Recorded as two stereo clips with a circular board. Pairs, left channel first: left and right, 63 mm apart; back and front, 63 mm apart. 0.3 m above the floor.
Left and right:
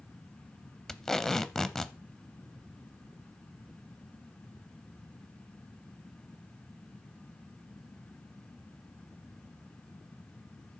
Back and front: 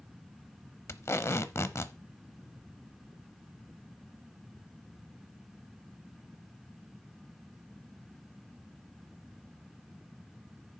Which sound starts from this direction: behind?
Tape being pulled, at 0.9 s.